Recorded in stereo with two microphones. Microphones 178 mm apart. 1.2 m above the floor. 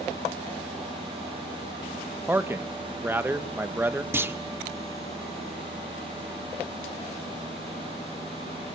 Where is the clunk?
15° right (ahead or behind), 1.3 m.